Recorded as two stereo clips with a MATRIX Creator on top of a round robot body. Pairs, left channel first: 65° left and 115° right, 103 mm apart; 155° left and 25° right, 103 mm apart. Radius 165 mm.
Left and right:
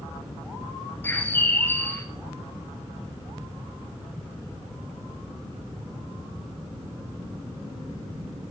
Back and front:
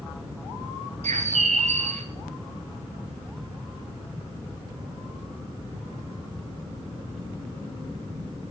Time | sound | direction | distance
1.0 | a bird | 5° right | 0.9 m